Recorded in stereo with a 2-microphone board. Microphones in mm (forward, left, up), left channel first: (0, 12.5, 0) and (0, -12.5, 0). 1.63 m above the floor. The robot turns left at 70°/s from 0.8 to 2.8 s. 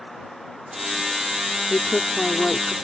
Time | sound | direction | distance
1.7 | a woman speaking | 60° left | ?